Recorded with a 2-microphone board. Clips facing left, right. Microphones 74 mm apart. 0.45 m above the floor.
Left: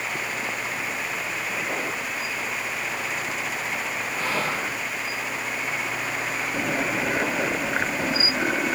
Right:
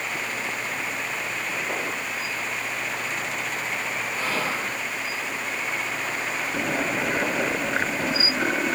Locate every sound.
4.1 s whispering: 20° left (ahead or behind), 1.1 m